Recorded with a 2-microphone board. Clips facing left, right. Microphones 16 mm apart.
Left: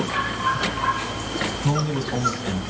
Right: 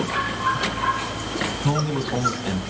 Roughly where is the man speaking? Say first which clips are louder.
Even; centre.